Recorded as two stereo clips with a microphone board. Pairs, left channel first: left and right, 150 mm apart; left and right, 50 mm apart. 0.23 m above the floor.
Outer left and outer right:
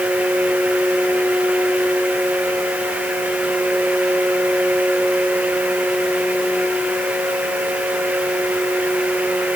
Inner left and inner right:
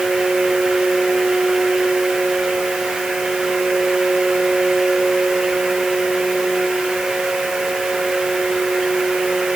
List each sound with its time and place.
Only background noise.